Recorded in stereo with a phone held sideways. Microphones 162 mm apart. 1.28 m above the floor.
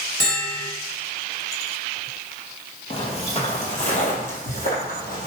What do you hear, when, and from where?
0.2 s a bell: 80° left, 1.6 m
2.9 s footsteps: 35° left (ahead or behind), 1.9 m; by 5.3 s 60° left (ahead or behind), 2.5 m